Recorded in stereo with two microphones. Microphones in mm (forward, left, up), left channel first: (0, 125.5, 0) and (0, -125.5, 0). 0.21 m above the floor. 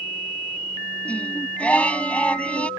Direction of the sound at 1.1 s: 5° left (ahead or behind).